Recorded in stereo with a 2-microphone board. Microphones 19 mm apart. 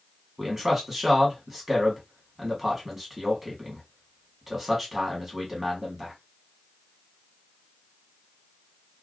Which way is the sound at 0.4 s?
20° right (ahead or behind).